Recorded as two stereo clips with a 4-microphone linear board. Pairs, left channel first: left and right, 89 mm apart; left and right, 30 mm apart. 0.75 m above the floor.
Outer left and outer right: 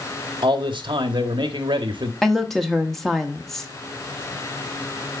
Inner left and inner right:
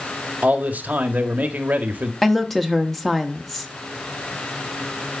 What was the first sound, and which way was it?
A man speaking, 65° right (ahead or behind).